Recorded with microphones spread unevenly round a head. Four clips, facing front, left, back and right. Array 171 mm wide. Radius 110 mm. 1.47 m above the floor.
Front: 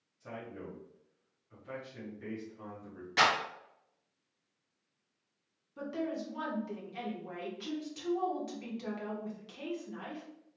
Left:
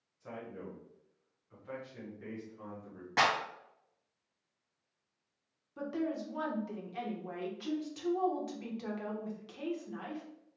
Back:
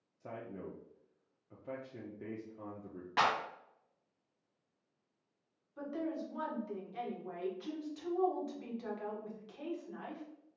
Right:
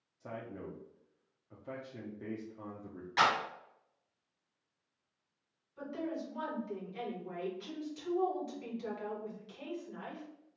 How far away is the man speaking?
About 0.9 m.